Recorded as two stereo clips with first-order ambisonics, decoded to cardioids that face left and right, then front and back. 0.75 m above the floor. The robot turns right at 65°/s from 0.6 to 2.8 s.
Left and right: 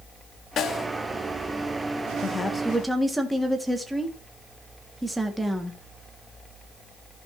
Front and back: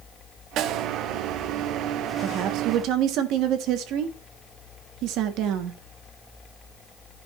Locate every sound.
0.6 s a snare drum: 145° left, 1.1 m; by 0.9 s 165° left, 1.1 m
2.2 s a woman speaking: 150° left, 1.4 m; by 5.8 s 175° right, 1.4 m